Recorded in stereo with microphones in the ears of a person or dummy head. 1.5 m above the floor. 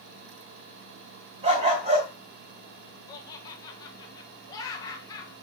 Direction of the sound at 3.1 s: 20° left (ahead or behind).